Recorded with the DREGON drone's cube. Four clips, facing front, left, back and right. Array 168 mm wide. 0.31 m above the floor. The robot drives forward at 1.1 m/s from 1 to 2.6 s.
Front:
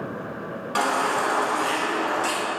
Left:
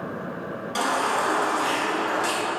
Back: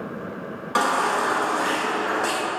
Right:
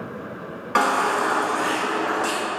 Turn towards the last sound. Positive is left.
turn(degrees=-140)